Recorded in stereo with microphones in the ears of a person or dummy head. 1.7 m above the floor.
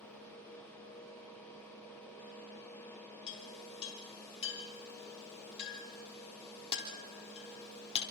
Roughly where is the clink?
Left.